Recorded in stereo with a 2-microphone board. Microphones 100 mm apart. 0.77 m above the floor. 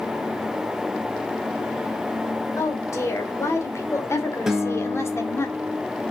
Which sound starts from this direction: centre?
A guitar, at 4.5 s.